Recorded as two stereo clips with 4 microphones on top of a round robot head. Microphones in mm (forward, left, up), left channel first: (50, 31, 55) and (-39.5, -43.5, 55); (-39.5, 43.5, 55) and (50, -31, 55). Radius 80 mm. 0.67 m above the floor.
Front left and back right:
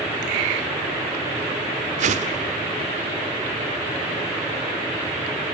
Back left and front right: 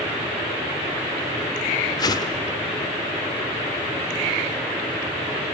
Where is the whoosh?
160° right, 1.1 m.